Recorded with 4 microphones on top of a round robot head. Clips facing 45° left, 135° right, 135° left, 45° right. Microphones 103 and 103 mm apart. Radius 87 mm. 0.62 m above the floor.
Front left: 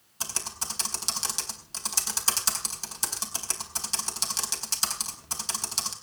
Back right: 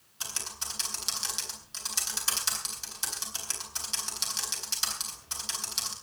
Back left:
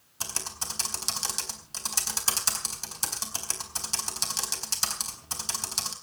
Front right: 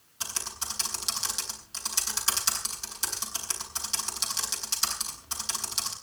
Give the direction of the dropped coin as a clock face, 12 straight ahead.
No dropped coin in this recording.